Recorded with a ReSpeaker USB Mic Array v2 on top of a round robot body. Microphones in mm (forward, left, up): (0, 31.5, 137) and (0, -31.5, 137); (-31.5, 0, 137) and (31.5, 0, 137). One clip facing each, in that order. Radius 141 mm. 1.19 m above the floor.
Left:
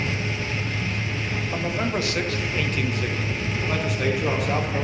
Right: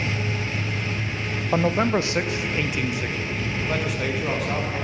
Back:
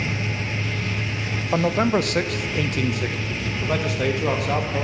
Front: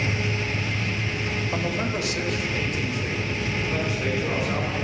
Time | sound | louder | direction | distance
1.5 | a man speaking | right 7 dB, back 10 dB | 130° right | 0.7 m